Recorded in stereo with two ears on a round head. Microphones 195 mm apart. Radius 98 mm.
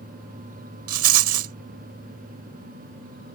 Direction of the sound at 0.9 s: 75° right (ahead or behind).